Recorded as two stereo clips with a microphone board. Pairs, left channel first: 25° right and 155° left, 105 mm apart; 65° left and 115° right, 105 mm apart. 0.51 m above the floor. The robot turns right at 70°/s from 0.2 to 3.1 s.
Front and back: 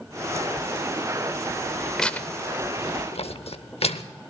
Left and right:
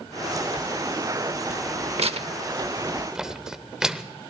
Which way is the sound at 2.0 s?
110° right.